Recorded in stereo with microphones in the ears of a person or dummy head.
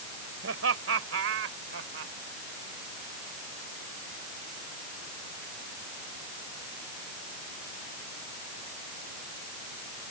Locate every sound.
0.4 s laughter: 85° right; by 2.1 s 75° right (ahead or behind)